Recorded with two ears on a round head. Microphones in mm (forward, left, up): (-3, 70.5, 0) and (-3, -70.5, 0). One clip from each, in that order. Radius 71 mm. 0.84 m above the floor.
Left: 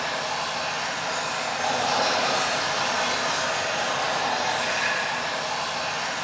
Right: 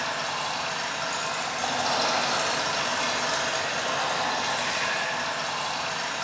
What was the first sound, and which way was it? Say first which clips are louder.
Running water: left 1 dB; 65° right (ahead or behind).